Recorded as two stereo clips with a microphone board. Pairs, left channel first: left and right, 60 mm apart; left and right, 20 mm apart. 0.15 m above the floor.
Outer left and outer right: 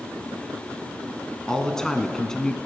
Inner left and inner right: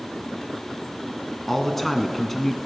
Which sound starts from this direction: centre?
A man speaking, at 1.5 s.